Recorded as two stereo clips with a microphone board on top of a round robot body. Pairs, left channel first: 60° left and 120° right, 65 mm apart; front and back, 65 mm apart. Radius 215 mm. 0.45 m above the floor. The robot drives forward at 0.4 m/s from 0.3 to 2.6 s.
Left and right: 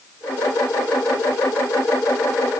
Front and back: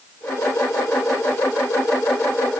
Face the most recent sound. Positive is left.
No sound to turn to.